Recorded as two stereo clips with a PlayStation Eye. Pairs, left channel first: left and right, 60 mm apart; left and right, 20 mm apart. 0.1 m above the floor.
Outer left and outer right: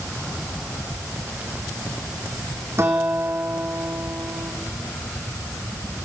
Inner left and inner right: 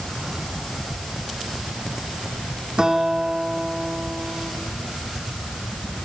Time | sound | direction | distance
2.8 | a guitar | 45° right (ahead or behind) | 4 m